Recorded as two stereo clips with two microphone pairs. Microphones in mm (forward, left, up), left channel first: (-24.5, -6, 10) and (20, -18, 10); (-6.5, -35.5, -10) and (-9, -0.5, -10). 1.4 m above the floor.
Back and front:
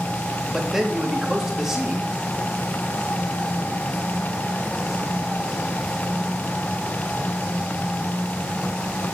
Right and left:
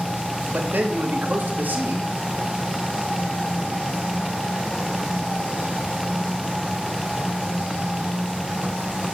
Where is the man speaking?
65° left, 2.5 m.